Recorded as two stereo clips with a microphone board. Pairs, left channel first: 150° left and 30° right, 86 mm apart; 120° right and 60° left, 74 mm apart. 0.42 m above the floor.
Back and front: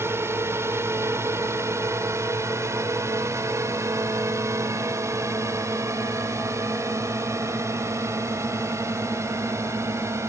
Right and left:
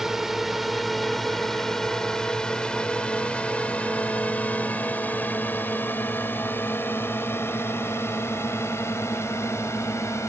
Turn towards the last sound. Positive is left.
turn(degrees=-80)